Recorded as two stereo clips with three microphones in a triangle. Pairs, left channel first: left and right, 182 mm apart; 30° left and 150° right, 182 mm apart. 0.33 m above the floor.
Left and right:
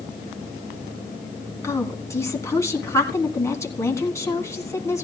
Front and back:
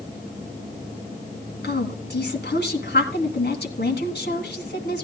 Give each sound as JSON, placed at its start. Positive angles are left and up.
{"t": 1.6, "sound": "a woman speaking", "azimuth_deg": 15, "distance_m": 2.5}